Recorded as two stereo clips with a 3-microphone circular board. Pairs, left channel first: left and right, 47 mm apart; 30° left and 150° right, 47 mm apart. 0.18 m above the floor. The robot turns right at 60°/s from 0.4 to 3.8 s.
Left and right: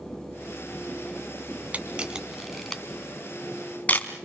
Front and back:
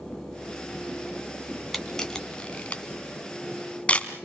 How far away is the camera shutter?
About 2 m.